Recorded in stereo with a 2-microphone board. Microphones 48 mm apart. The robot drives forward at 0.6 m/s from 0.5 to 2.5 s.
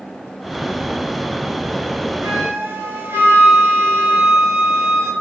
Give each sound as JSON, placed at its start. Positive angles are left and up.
{"t": 2.2, "sound": "a flute", "side_deg": -50, "distance_m": 1.3}